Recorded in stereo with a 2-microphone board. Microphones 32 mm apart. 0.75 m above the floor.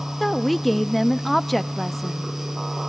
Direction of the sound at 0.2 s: 5° left (ahead or behind).